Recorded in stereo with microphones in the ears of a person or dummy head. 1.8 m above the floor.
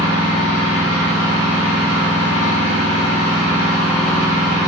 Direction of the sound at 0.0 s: 30° left (ahead or behind).